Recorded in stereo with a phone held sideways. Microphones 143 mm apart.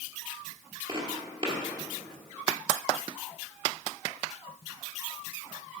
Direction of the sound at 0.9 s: 40° right (ahead or behind).